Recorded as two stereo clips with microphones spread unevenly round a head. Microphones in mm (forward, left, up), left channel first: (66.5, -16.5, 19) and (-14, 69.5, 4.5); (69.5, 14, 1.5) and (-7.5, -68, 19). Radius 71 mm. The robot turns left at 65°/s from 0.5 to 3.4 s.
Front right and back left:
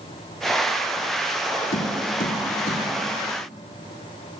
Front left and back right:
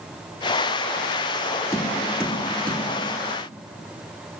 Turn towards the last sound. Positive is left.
turn(degrees=-130)